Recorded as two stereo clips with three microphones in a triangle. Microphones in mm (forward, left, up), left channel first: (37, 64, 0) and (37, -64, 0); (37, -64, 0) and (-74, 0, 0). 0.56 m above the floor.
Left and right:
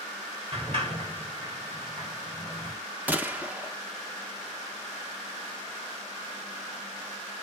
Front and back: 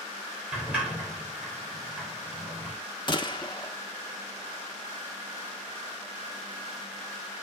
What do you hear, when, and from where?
0.5 s a sliding door: 130° right, 2.5 m
3.1 s a gunshot: 20° right, 0.9 m